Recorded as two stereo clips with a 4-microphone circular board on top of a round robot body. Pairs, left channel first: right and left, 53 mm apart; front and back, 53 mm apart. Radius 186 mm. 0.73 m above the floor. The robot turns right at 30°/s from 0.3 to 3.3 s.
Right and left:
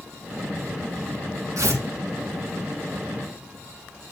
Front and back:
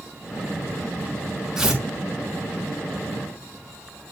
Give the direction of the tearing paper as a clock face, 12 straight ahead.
9 o'clock.